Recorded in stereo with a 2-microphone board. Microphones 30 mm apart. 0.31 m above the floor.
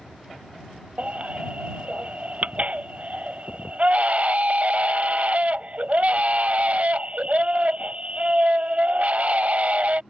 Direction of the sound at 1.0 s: 55° right (ahead or behind).